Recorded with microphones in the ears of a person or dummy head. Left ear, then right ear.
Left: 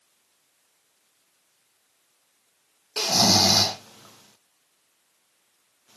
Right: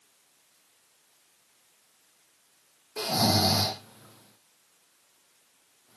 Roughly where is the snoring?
Left.